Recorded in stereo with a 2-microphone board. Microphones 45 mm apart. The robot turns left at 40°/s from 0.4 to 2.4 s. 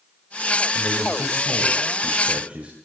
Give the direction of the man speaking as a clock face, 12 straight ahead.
3 o'clock.